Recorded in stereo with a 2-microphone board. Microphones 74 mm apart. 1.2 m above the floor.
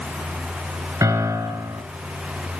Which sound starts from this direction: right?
A piano, at 1.0 s.